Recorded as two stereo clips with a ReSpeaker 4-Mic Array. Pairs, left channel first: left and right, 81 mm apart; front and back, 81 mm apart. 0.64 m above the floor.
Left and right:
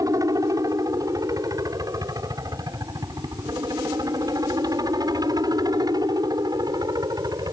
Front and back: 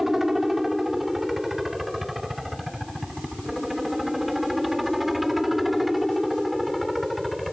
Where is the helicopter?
95° right; by 7.5 s 90° right.